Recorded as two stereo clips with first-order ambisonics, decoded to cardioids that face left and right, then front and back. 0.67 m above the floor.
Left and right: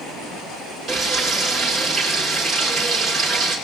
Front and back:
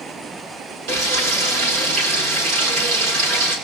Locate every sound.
0.9 s frying: 160° right, 7.5 m